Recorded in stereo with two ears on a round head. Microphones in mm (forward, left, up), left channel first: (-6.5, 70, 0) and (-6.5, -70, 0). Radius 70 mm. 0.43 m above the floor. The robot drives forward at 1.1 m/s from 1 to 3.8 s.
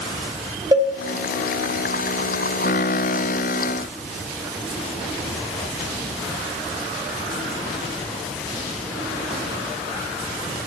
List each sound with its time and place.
0.7 s a cowbell: 20° right (ahead or behind), 2 m